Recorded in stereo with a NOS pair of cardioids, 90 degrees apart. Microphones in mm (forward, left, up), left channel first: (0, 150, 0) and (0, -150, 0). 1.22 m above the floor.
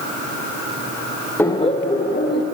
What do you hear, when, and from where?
1.4 s laughter: 5° left, 0.6 m; by 2.4 s 35° left, 1.3 m